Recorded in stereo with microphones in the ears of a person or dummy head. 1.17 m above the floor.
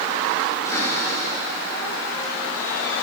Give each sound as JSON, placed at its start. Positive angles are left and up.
{"t": 0.7, "sound": "a cupboard door", "side_deg": 15, "distance_m": 6.5}